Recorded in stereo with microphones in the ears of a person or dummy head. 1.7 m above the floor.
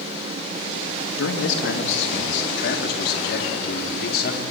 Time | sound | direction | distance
1.2 | a man speaking | 75° left (ahead or behind) | 2.5 m